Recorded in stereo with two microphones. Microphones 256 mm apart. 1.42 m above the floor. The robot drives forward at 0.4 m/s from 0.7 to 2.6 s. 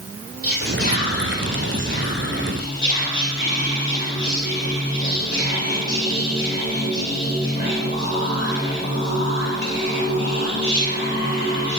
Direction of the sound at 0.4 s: 55° left (ahead or behind).